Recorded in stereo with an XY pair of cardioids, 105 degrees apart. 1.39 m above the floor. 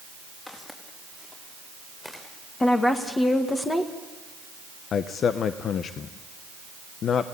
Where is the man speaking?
60° left, 0.8 m.